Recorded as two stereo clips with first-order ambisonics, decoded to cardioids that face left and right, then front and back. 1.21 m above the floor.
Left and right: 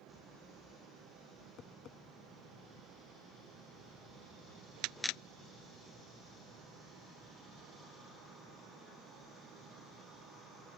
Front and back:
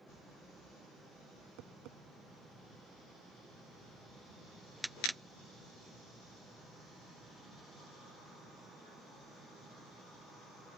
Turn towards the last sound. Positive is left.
turn(degrees=145)